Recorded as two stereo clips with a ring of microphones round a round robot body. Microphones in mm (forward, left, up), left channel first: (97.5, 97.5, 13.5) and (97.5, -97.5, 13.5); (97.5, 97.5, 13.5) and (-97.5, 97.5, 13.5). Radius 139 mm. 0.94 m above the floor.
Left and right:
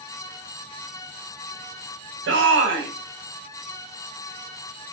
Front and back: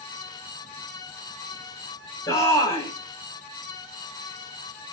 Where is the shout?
75° right, 5.5 m.